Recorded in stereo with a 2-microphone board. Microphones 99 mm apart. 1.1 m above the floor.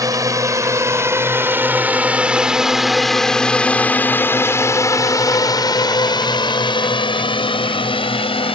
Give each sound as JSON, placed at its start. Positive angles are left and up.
{"t": 0.0, "sound": "a drone", "side_deg": -40}